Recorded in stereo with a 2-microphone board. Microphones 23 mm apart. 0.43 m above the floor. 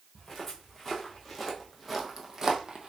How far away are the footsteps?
About 2.0 m.